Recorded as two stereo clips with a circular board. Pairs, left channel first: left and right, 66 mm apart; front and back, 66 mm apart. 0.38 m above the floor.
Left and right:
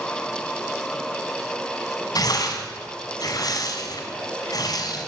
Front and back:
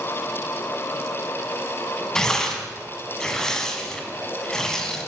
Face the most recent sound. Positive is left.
turn(degrees=80)